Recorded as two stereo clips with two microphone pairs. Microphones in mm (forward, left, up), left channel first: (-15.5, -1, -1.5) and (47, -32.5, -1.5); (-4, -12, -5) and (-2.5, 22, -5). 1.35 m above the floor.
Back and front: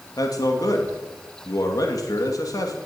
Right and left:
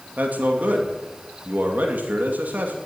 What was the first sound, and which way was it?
A man speaking, 125° left.